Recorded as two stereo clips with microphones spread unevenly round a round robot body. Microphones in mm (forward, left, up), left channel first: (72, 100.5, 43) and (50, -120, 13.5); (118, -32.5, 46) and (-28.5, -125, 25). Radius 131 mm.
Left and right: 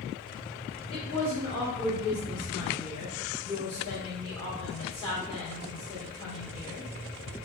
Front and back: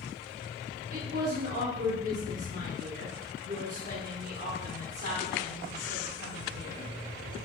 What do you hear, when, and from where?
0.9 s a woman speaking: 155° left, 1.2 m